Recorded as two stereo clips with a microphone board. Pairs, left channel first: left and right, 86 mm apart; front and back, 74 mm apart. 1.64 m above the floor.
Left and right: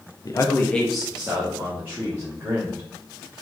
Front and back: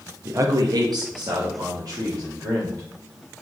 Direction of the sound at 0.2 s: 125° left.